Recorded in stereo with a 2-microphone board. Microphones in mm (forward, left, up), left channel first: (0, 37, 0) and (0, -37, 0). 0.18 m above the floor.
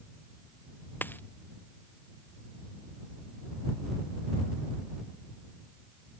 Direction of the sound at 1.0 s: 25° left (ahead or behind).